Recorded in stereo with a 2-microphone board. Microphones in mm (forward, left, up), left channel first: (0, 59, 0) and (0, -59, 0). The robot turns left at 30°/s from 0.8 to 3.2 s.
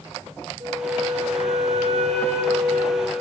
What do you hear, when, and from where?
0.6 s a flute: 40° right, 4 m; by 3.2 s 110° right, 4 m